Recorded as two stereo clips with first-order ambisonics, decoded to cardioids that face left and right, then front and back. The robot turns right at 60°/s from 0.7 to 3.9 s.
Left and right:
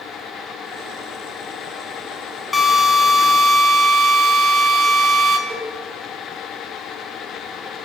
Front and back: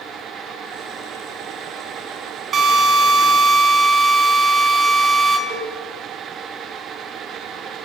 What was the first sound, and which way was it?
A drill, 155° left.